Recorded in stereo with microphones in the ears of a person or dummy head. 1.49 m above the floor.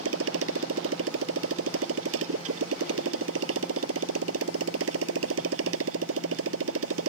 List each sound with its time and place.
0.0 s a motorcycle: 85° right